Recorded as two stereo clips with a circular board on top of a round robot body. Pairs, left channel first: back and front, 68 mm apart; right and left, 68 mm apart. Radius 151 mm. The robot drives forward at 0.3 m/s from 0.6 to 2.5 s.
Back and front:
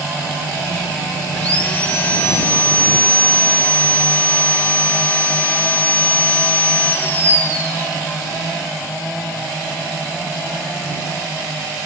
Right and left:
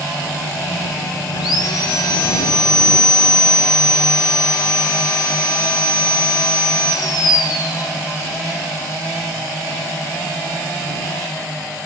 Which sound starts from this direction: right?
Sawing, at 1.4 s.